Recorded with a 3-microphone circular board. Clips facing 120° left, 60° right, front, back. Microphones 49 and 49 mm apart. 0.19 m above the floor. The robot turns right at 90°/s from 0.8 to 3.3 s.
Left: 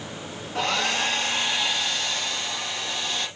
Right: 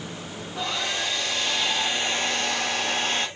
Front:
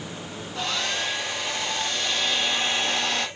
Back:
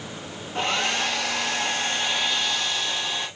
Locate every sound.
0.6 s a hair dryer: 130° left, 5 m; by 3.3 s 10° right, 5 m